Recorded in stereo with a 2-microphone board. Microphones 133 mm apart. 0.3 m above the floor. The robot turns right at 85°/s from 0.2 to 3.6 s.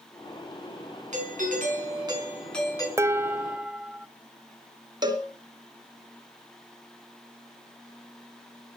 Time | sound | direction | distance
1.1 | a doorbell | 115° right | 5 m
3.0 | dishes clattering | 20° right (ahead or behind) | 0.5 m
5.0 | a cowbell | 30° right (ahead or behind) | 2.5 m